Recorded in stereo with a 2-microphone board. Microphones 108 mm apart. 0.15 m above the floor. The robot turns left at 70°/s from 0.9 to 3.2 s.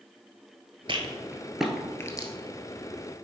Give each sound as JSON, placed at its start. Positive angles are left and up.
{"t": 0.9, "sound": "a rattle", "side_deg": -50, "distance_m": 0.8}